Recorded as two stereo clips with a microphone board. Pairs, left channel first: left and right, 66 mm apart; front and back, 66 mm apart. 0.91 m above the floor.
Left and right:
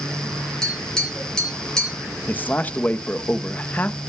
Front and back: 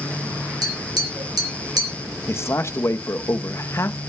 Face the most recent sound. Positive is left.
turn(degrees=35)